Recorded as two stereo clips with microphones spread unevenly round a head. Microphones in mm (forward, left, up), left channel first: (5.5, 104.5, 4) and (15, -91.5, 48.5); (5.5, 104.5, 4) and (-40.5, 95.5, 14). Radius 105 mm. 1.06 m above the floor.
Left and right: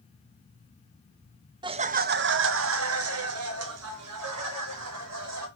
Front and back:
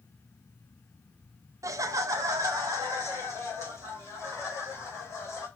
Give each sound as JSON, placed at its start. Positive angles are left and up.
{"t": 1.6, "sound": "laughter", "azimuth_deg": -160, "distance_m": 0.5}